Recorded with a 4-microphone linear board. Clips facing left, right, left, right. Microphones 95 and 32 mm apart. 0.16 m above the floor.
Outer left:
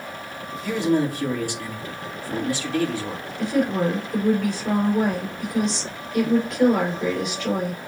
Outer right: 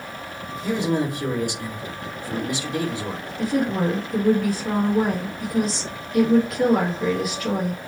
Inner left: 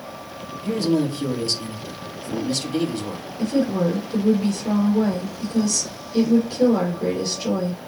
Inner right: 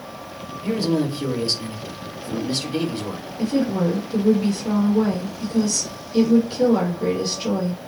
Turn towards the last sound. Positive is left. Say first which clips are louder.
# outer left 1 dB, even
turn(degrees=-5)  # may be behind; listen again after turning